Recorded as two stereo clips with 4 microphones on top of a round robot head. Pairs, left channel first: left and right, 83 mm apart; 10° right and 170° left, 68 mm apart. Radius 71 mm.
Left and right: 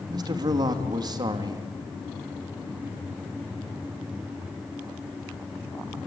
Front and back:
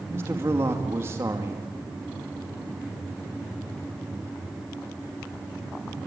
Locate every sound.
0.1 s a man speaking: 130° right, 2.5 m